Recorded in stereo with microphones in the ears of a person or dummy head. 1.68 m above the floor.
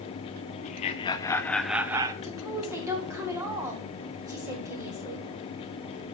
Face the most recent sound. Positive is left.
turn(degrees=-15)  # may be behind; listen again after turning